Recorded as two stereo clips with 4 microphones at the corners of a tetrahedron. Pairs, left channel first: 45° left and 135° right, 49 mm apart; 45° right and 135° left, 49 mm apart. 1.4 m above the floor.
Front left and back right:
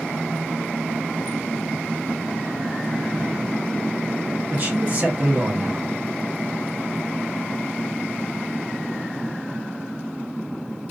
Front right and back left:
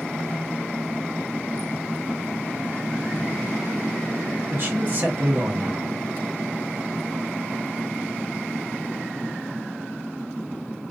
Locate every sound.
4.5 s a man speaking: 175° left, 1.1 m